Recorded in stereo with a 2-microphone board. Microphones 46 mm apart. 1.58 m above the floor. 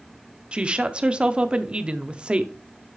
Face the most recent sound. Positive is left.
turn(degrees=-25)  # may be behind; listen again after turning